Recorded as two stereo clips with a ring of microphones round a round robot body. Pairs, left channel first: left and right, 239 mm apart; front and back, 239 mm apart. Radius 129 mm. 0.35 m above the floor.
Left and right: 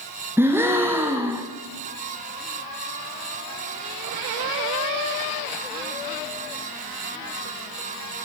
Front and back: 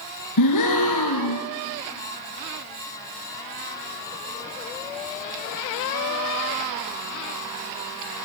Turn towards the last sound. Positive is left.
turn(degrees=-10)